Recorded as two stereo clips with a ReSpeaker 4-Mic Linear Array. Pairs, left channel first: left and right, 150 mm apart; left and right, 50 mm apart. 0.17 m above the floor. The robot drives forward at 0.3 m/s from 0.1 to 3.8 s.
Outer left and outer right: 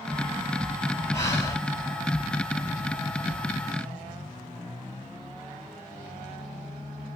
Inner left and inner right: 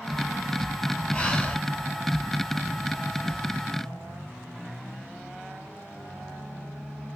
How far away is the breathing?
About 0.9 m.